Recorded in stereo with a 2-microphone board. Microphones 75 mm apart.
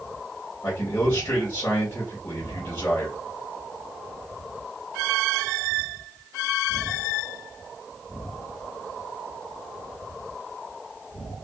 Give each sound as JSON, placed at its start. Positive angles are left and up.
{"t": 0.6, "sound": "a man speaking", "side_deg": 40, "distance_m": 1.3}